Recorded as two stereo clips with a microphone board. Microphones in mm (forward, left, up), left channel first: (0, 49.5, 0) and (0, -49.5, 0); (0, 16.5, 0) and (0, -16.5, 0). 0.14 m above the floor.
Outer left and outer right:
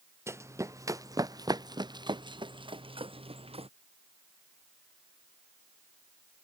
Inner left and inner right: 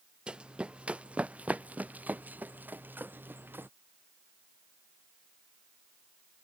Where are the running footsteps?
25° right (ahead or behind); by 3.7 s 70° right (ahead or behind).